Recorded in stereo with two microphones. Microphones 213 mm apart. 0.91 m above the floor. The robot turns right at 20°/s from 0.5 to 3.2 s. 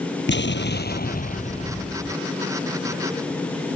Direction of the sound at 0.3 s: 125° left.